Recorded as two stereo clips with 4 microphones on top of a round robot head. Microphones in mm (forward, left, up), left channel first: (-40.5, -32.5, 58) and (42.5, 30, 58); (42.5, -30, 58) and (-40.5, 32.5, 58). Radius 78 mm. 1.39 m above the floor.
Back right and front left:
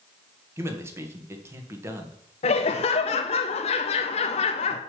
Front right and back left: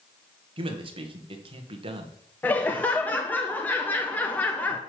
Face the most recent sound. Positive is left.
turn(degrees=-115)